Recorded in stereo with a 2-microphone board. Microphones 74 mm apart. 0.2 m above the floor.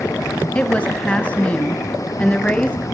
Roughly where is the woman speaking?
Centre.